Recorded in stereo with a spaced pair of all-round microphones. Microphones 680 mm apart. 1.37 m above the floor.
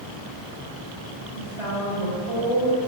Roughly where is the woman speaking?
Right.